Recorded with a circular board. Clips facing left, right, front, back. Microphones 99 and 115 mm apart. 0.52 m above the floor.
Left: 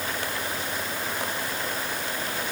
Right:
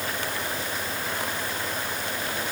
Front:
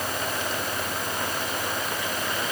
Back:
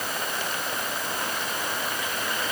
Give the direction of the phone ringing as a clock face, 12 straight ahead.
I don't hear a phone ringing.